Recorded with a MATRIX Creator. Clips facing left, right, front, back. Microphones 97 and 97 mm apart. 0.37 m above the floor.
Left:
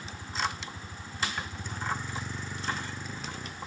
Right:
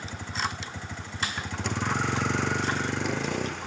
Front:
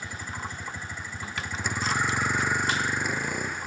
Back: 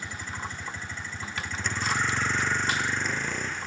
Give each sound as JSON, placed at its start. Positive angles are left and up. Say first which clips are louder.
{"t": 0.0, "sound": "a vehicle", "louder": "right 1 dB, even", "azimuth_deg": -80}